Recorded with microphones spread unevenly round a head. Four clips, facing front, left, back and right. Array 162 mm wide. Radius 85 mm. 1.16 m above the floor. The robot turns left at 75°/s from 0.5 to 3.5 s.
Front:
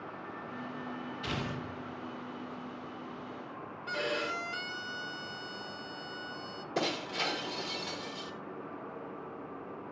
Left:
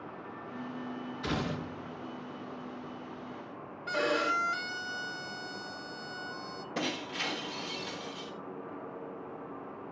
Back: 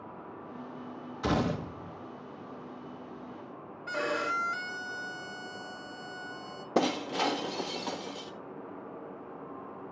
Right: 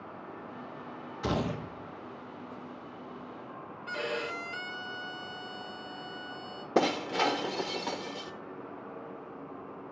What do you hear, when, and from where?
1.2 s a gunshot: 145° right, 0.9 m; by 2.0 s 160° left, 0.9 m
3.9 s a violin: 110° left, 1.3 m
6.8 s breaking glass: 130° right, 1.1 m